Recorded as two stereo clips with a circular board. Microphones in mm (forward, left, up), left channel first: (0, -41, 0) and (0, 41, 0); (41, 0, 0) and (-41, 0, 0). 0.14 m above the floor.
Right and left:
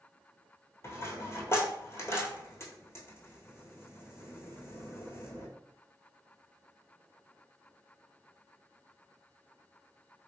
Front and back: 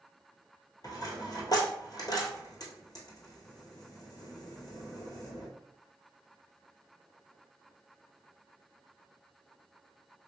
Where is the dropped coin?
35° right, 1.0 m.